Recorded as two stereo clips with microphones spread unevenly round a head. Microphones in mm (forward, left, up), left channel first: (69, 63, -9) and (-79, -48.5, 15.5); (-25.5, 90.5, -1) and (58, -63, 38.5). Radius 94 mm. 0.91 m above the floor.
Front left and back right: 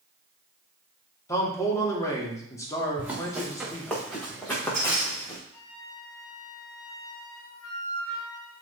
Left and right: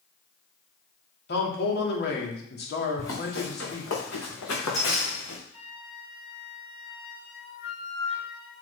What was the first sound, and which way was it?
A man speaking, 110° left.